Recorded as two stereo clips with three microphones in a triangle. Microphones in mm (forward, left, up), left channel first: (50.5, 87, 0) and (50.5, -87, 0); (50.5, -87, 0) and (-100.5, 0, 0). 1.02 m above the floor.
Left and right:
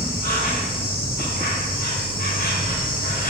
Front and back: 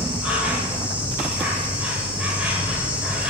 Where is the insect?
70° left, 1.3 m.